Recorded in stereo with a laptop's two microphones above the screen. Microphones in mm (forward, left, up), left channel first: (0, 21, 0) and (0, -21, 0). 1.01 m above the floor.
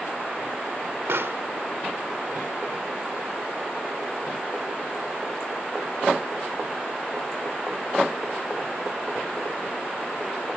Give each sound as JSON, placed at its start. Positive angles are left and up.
{"t": 1.1, "sound": "a pop", "side_deg": -75}